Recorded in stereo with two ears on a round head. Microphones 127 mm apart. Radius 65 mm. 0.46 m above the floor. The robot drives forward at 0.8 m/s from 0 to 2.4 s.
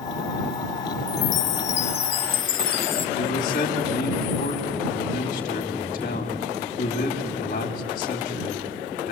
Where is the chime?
50° left (ahead or behind), 0.9 m; by 3.1 s 35° left (ahead or behind), 1.1 m.